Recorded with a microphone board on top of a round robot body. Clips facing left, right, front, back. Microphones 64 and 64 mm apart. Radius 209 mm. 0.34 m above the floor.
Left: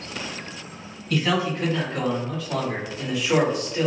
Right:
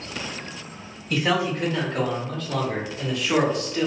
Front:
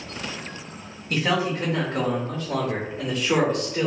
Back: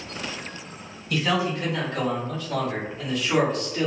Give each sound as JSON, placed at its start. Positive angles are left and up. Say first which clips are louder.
{"t": 1.1, "sound": "a man speaking", "louder": "even, front 1 dB", "azimuth_deg": -20, "distance_m": 1.6}